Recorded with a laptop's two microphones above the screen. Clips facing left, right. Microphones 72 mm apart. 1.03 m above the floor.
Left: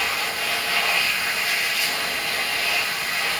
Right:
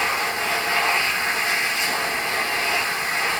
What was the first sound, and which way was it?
A machine running, 25° right (ahead or behind).